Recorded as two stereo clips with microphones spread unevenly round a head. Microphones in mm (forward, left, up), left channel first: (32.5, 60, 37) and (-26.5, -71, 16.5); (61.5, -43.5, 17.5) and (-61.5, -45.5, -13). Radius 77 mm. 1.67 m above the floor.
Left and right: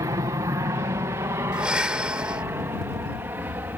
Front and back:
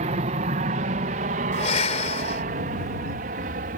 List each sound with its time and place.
0.0 s an aircraft: straight behind; by 3.8 s 170° left
1.5 s breathing: 30° right